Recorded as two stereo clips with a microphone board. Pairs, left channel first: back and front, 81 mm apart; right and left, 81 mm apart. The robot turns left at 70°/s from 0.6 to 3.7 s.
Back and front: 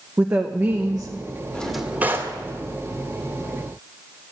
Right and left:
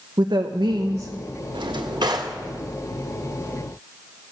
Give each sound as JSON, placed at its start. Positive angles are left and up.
{"t": 0.2, "sound": "a woman speaking", "azimuth_deg": 65, "distance_m": 0.9}
{"t": 1.5, "sound": "a drawer", "azimuth_deg": 105, "distance_m": 1.7}